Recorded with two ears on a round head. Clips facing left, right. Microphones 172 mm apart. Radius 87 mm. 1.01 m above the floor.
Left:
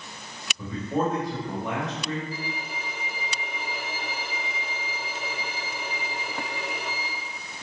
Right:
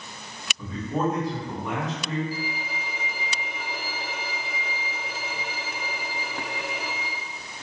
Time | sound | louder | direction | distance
0.6 | a man speaking | left 1 dB | 10° left (ahead or behind) | 1.9 m
2.3 | a violin | right 2 dB | 5° right (ahead or behind) | 0.6 m